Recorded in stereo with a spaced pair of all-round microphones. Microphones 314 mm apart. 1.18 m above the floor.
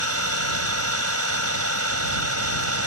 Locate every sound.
0.0 s an engine running: 50° right (ahead or behind)